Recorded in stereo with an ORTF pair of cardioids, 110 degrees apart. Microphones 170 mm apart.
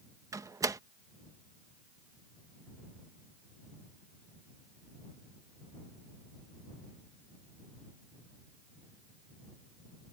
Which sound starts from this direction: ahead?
A door slam, at 0.3 s.